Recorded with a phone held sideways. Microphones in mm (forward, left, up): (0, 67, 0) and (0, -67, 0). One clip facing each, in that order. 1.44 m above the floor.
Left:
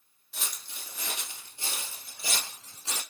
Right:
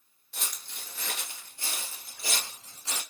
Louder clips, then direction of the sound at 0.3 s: Even; centre (ahead or behind).